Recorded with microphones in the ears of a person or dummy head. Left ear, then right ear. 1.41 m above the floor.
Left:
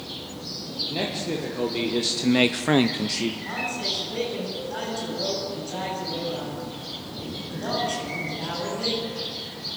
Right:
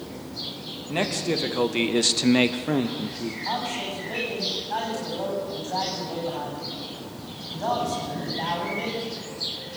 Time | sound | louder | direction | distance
0.9 | a man speaking | right 6 dB | 50° right (ahead or behind) | 2.5 m
3.5 | a man speaking | even | 45° right (ahead or behind) | 9.5 m